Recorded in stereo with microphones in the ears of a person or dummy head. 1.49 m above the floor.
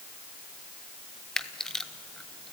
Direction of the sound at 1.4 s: Centre (ahead or behind).